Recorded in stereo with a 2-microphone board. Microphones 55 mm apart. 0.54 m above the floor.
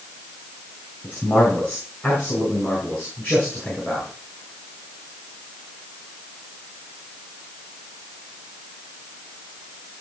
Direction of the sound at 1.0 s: 30° left (ahead or behind).